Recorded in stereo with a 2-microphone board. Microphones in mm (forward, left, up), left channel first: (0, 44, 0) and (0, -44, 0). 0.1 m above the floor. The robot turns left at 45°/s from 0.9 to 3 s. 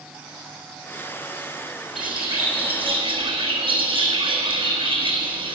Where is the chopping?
No chopping in this recording.